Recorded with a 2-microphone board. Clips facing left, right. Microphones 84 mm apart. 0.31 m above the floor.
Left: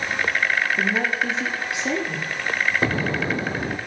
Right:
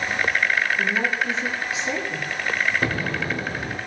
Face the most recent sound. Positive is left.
turn(degrees=25)  # may be behind; listen again after turning